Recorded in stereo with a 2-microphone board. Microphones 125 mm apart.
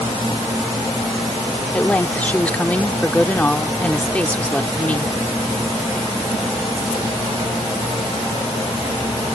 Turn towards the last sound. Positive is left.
turn(degrees=10)  # may be behind; listen again after turning